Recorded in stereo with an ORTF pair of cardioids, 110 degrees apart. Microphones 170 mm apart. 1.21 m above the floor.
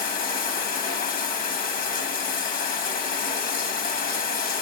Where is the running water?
60° left, 1.1 m.